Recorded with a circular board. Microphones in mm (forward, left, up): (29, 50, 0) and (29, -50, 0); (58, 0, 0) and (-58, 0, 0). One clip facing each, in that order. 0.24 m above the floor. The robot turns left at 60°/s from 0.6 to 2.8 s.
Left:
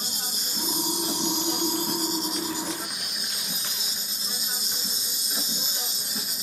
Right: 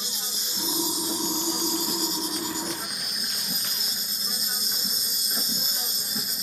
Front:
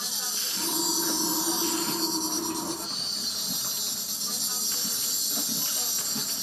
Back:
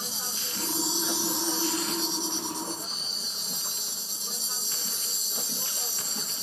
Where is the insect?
130° left, 1.0 m; by 6.4 s straight ahead, 1.0 m.